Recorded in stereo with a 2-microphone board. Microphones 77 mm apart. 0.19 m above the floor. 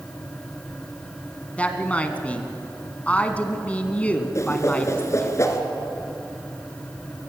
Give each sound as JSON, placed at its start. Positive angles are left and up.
{"t": 1.6, "sound": "a woman speaking", "side_deg": 20, "distance_m": 1.6}
{"t": 4.3, "sound": "a whoosh", "side_deg": 40, "distance_m": 1.9}